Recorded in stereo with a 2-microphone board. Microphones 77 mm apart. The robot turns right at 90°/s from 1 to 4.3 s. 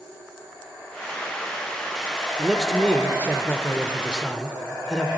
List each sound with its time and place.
2.4 s a man speaking: 5° right (ahead or behind), 0.9 m; by 5.1 s 5° left (ahead or behind), 0.9 m